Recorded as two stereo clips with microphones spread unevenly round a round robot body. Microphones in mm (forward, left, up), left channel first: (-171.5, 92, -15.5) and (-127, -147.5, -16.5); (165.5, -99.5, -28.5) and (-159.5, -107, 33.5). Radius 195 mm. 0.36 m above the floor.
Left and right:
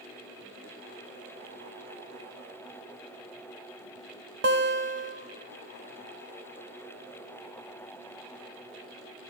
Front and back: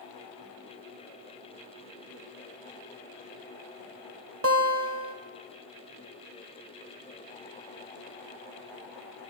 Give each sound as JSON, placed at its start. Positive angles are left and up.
{"t": 4.4, "sound": "a guitar", "azimuth_deg": -125, "distance_m": 0.9}